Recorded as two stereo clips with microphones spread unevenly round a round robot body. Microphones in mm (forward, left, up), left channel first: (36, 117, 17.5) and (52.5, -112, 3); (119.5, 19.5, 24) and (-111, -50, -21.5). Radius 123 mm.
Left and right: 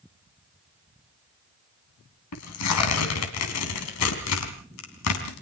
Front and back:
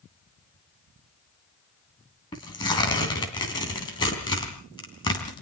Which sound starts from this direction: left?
Tearing paper, at 2.3 s.